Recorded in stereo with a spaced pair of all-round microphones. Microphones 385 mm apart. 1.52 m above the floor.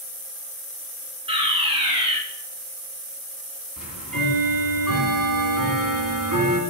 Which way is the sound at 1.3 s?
15° right (ahead or behind).